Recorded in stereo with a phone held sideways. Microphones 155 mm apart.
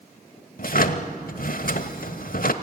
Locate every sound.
0.6 s a drawer: 65° left (ahead or behind), 1.0 m